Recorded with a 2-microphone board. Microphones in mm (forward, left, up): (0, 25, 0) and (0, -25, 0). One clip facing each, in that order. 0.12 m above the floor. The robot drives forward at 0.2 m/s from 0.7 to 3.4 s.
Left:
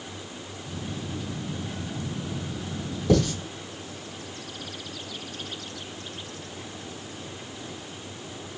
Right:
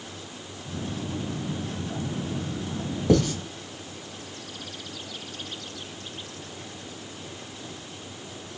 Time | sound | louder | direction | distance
3.1 | writing | right 1 dB | 25° right (ahead or behind) | 1.8 m